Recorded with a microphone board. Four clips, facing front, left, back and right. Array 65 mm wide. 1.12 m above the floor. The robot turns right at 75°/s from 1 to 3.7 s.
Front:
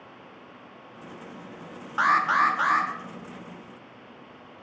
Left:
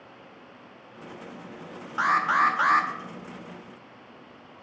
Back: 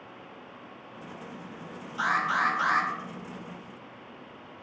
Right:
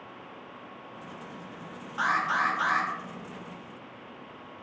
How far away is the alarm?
About 1.0 m.